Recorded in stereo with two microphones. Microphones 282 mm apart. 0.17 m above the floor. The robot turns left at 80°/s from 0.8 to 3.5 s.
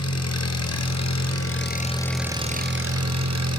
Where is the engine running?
110° left, 1.3 m; by 3.6 s 105° right, 1.3 m.